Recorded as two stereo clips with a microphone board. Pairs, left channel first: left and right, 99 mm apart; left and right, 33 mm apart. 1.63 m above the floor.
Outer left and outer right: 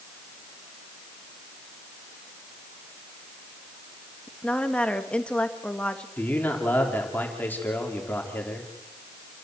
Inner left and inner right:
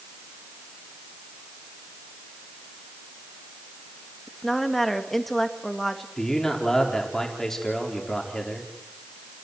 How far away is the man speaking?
About 4 m.